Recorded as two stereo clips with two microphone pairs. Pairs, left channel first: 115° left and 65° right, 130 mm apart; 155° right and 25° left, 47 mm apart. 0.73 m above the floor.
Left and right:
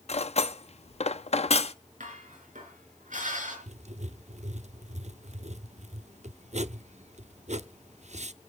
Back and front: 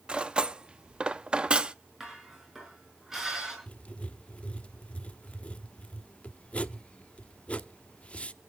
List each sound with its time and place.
0.1 s cutlery clinking: 90° left, 0.6 m
2.0 s dishes clattering: 55° right, 6 m
3.7 s writing: 90° right, 0.6 m